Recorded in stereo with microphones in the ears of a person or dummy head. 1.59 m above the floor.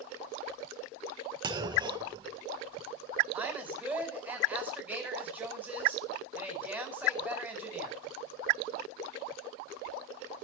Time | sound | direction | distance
1.4 | a clunk | 20° right (ahead or behind) | 1.3 m
3.3 | a woman speaking | 10° right (ahead or behind) | 5.5 m